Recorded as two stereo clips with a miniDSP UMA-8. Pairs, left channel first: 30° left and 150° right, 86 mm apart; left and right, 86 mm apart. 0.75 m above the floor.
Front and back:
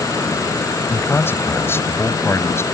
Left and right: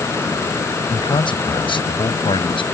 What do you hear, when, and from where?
0.9 s a man speaking: 95° left; by 2.6 s 90° left